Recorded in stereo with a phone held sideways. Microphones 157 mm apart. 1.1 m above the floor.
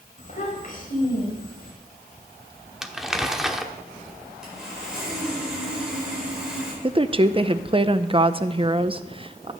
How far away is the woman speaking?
About 0.6 m.